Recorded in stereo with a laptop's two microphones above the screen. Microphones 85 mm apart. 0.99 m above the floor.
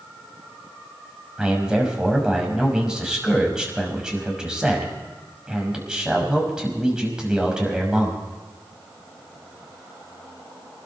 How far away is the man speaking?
About 6 m.